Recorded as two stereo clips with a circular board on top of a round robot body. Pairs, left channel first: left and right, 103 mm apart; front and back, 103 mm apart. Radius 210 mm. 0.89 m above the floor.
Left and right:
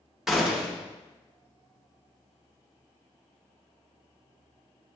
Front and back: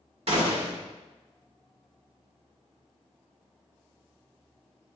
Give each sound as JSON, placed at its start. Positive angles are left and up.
{"t": 0.3, "sound": "a gunshot", "azimuth_deg": -175, "distance_m": 2.5}